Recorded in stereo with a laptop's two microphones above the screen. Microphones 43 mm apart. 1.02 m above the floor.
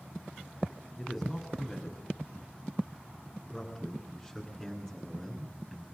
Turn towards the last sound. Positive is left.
turn(degrees=-10)  # may be behind; listen again after turning